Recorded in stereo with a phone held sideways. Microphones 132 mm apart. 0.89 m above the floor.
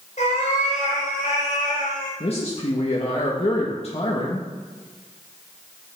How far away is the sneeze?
I don't hear a sneeze.